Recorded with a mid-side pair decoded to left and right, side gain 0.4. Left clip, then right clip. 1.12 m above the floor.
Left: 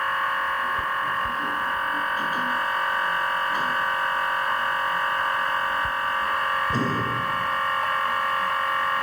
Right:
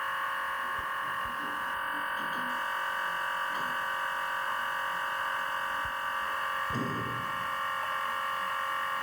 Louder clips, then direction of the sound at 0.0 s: Left 8 dB; 55° left.